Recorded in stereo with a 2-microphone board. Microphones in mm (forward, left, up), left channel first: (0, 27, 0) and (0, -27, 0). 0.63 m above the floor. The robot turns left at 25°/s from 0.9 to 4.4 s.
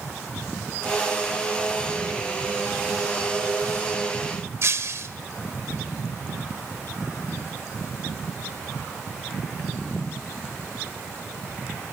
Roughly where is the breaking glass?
Right.